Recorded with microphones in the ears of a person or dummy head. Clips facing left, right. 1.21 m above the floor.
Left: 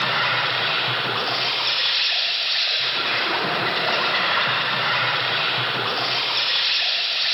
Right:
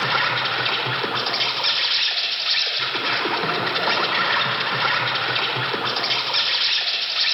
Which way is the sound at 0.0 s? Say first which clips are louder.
Even; 85° right.